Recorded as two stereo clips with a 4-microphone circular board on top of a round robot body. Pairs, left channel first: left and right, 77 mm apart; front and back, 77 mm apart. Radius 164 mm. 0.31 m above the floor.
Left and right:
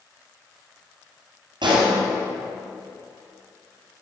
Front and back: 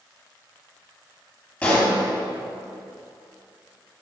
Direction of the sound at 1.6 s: 75° right.